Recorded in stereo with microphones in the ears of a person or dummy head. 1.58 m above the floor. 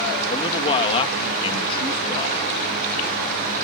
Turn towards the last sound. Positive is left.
turn(degrees=30)  # may be behind; listen again after turning